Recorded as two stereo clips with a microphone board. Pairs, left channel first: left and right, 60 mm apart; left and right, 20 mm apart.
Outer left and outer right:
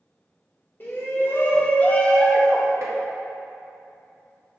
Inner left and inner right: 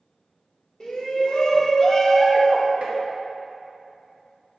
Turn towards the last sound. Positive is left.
turn(degrees=-60)  # may be behind; listen again after turning